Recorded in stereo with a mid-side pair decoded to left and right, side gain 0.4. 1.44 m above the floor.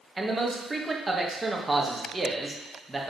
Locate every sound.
0.2 s a man speaking: 20° right, 1.7 m